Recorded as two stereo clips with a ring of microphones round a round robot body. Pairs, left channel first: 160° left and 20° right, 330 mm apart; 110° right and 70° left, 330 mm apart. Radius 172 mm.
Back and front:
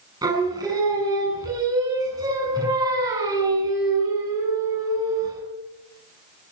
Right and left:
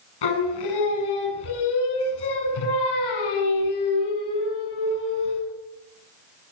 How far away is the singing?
About 7 m.